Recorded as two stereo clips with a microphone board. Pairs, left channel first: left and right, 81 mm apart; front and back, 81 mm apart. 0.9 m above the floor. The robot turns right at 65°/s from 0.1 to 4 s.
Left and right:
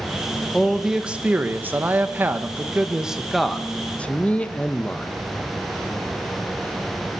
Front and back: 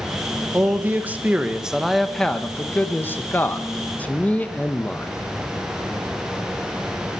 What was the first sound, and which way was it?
A man speaking, 175° left.